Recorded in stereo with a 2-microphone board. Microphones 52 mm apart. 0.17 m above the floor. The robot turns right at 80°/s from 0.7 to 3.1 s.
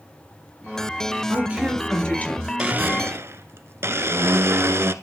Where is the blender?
155° right, 1.0 m; by 4.9 s 115° right, 1.0 m.